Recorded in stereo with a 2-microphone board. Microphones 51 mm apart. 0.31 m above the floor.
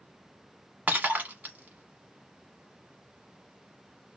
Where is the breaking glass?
35° right (ahead or behind), 1.2 m.